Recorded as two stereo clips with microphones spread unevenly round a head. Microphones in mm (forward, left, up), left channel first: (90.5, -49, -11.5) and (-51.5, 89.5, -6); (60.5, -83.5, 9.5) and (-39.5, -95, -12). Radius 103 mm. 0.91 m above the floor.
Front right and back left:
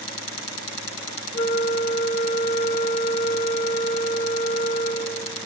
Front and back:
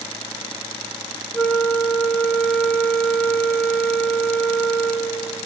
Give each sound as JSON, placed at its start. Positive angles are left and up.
{"t": 1.3, "sound": "a flute", "azimuth_deg": -80, "distance_m": 0.8}